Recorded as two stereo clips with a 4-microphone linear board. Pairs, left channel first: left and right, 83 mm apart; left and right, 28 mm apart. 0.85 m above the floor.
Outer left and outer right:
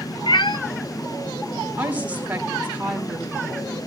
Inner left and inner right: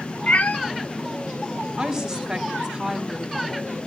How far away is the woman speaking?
About 3 m.